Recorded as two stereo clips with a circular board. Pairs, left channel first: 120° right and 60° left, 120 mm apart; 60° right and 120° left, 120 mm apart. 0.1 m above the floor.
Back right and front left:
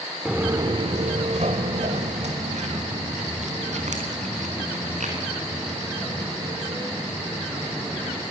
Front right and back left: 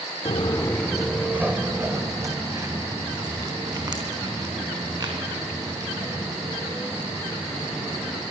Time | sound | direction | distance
0.2 | footsteps | 25° right | 0.6 m